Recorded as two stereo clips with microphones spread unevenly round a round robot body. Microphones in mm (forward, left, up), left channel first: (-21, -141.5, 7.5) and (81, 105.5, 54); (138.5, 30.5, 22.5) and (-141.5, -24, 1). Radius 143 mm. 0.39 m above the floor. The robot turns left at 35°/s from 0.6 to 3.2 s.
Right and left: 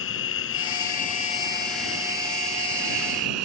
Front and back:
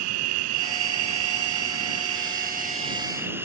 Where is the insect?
160° right; by 3.5 s 110° left.